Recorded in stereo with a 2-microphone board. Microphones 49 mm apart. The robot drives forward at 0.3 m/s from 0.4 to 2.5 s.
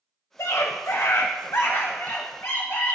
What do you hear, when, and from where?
0.4 s a scream: 75° left (ahead or behind), 0.9 m; by 3.0 s 55° left (ahead or behind), 1.1 m